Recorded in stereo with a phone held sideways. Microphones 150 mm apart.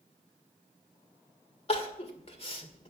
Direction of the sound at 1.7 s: 40° left (ahead or behind).